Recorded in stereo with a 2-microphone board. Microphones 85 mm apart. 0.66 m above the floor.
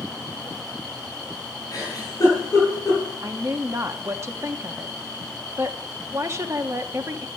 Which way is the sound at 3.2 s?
35° right (ahead or behind).